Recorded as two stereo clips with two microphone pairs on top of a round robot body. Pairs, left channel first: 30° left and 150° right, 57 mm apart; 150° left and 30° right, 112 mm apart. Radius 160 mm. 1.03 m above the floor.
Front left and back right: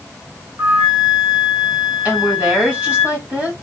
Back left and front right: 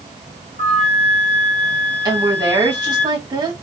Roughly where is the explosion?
No explosion in this recording.